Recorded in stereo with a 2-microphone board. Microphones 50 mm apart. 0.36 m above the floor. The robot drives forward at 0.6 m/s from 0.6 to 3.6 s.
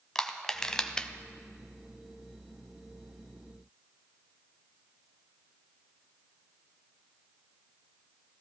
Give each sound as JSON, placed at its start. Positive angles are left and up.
{"t": 0.1, "sound": "crushing", "side_deg": 10, "distance_m": 0.8}